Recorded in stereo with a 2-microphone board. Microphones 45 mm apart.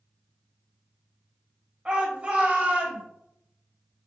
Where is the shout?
25° right (ahead or behind), 1.7 m; by 3.0 s 45° right (ahead or behind), 2 m.